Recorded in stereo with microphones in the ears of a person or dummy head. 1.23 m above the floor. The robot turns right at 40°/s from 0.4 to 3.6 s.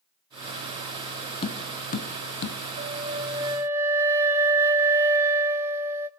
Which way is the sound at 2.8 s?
45° right.